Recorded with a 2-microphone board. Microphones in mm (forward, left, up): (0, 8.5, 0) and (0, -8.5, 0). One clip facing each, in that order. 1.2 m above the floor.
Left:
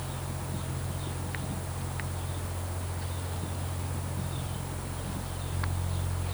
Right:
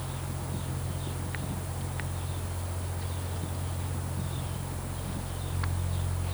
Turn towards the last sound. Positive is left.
No sound to turn to.